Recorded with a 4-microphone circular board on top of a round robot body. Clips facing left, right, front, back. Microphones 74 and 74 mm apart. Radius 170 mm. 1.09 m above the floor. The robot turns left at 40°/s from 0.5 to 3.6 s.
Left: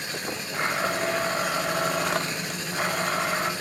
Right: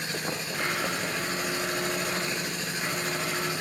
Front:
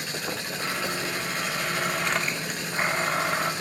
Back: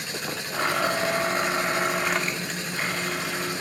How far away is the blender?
About 2.5 m.